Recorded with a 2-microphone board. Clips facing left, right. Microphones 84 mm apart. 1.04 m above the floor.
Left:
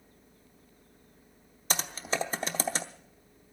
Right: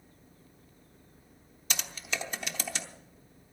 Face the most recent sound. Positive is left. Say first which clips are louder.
# left 5 dB
turn(degrees=35)  # may be behind; listen again after turning